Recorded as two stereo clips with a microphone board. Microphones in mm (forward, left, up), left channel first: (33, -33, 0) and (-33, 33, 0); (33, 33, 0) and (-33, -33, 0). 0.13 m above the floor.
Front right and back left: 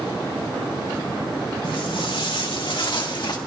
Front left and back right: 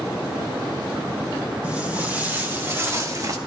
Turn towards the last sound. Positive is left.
turn(degrees=-85)